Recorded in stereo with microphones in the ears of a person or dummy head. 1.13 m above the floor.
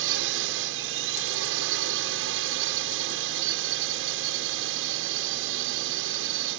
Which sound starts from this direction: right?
A drone, at 0.0 s.